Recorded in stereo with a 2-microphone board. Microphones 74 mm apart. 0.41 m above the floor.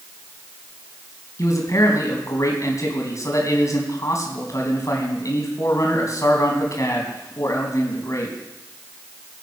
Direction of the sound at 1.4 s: 45° left (ahead or behind).